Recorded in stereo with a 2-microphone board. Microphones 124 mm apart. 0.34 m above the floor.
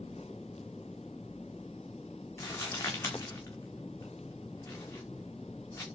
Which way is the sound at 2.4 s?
20° left (ahead or behind).